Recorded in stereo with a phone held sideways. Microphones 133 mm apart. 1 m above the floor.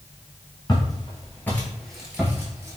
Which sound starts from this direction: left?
Footsteps, at 0.7 s.